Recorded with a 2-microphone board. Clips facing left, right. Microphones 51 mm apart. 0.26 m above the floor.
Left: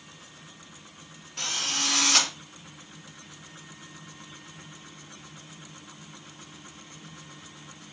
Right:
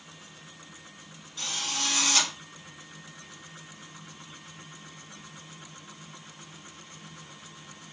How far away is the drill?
About 5 m.